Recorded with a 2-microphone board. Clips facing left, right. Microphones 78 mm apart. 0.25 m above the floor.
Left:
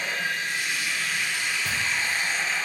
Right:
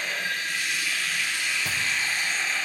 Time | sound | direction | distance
0.0 | running water | 45° left (ahead or behind) | 4.5 m
1.6 | chewing | 15° right (ahead or behind) | 3.5 m